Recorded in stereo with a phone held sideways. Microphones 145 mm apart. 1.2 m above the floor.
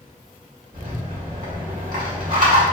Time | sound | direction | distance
0.7 | a rattle | 70° right (ahead or behind) | 1.3 m